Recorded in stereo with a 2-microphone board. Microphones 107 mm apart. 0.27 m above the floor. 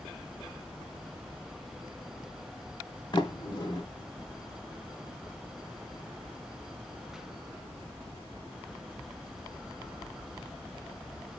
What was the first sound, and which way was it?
A sliding door, 45° left (ahead or behind).